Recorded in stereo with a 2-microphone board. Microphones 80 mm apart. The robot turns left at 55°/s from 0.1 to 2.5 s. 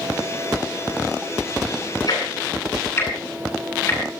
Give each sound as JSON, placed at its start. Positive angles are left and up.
{"t": 2.1, "sound": "ticking", "side_deg": 55, "distance_m": 9.5}